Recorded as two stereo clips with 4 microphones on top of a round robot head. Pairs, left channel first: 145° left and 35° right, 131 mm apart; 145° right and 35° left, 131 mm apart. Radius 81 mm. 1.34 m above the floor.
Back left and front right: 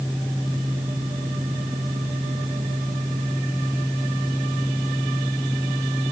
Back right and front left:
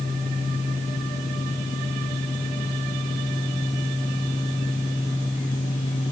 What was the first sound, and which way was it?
Only background noise.